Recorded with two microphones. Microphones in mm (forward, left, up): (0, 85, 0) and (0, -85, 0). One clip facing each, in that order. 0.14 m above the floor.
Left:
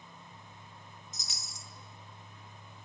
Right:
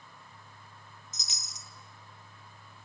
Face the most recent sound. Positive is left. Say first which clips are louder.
# left 1 dB
turn(degrees=-20)  # may be behind; listen again after turning